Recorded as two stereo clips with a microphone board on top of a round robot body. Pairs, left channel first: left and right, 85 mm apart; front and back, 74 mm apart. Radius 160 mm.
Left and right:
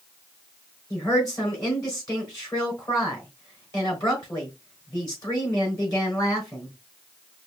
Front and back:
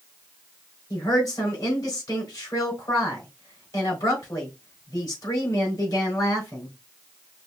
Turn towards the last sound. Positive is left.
turn(degrees=40)